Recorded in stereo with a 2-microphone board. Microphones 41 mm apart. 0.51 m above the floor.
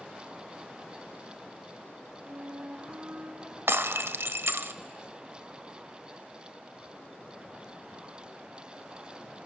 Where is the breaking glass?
80° right, 0.7 m.